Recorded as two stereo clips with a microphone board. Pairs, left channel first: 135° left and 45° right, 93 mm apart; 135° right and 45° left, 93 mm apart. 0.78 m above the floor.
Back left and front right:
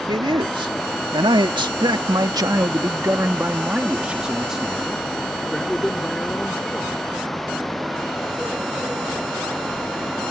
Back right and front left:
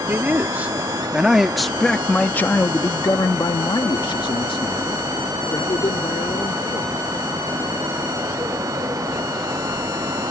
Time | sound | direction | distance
0.1 | a man speaking | 20° right | ?